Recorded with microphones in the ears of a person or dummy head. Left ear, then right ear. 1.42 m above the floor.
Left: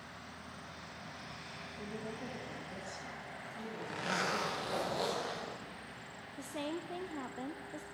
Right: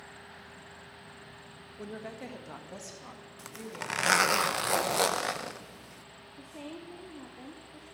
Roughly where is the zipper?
Right.